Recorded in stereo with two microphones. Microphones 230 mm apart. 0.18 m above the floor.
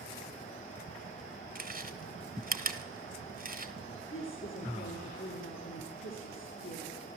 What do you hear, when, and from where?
1.6 s chewing: 40° right (ahead or behind), 1.0 m
4.1 s a woman speaking: 65° left (ahead or behind), 2.5 m